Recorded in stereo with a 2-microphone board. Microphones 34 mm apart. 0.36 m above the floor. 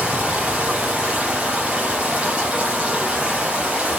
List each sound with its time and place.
0.0 s running water: 35° right (ahead or behind), 5.5 m